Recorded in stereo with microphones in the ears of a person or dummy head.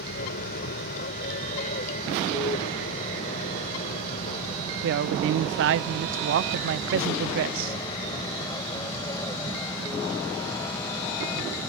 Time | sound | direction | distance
0.0 | an aircraft | 50° left (ahead or behind) | ?
4.8 | a woman speaking | 60° right (ahead or behind) | ?